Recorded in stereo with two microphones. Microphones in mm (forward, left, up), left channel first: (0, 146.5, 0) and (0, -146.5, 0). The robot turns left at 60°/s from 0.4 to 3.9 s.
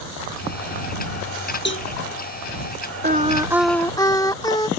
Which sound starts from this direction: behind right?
Singing, at 3.0 s.